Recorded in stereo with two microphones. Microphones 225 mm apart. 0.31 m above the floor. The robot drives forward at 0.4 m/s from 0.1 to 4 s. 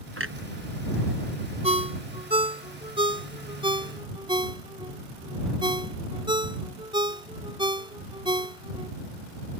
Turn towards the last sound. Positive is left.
turn(degrees=-20)  # may be behind; listen again after turning